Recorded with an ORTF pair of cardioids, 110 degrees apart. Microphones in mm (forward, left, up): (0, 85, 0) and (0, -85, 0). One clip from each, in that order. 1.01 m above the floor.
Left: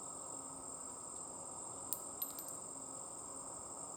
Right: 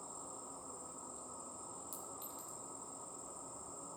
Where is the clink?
55° left, 1.0 m.